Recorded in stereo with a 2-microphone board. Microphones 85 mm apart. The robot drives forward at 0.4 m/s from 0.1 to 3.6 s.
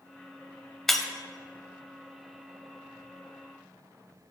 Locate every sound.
0.9 s breaking glass: 5° left (ahead or behind), 0.7 m